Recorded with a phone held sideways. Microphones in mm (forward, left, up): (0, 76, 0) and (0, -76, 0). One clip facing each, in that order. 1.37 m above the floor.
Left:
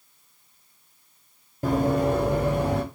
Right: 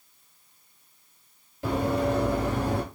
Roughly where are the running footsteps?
Left.